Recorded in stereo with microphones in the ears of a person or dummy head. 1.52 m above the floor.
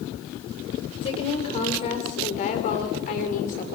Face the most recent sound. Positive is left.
turn(degrees=50)  # may be behind; listen again after turning